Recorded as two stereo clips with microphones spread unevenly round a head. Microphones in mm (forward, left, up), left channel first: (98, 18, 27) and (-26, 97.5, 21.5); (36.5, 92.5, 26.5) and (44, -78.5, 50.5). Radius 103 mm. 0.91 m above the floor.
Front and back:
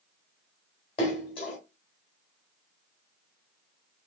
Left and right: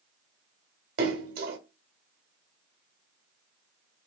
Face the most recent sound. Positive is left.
turn(degrees=-90)